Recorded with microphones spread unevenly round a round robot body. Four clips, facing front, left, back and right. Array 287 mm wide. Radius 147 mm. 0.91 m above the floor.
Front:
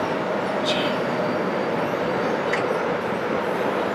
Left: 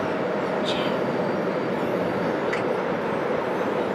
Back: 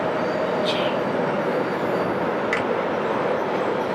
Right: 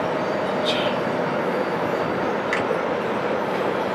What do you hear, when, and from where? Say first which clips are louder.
0.6 s whispering: right 2 dB, back 1 dB; 100° right, 1.6 m
2.5 s a finger snap: right 2 dB, even; 145° right, 1.4 m